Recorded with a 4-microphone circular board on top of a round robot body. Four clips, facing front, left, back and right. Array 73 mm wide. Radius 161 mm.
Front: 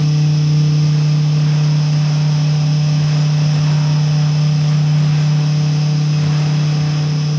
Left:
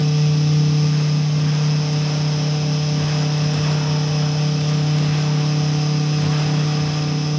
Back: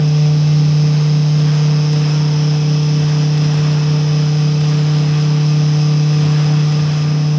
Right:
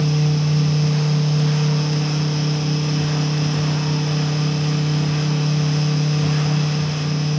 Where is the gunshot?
No gunshot in this recording.